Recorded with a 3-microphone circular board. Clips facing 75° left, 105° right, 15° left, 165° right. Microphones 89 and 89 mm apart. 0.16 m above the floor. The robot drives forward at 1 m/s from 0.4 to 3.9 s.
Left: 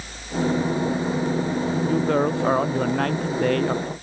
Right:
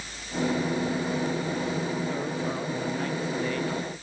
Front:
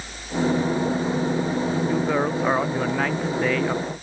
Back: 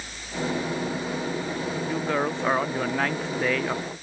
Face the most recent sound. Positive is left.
turn(degrees=105)